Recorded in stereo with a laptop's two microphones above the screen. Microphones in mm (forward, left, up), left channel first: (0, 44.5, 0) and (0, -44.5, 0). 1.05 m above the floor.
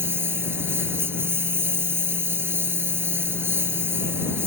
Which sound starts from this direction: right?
A lawn mower, at 0.0 s.